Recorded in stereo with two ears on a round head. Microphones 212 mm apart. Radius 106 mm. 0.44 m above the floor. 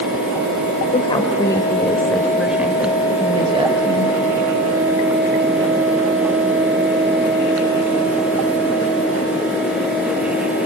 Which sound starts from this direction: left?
A woman speaking, at 0.9 s.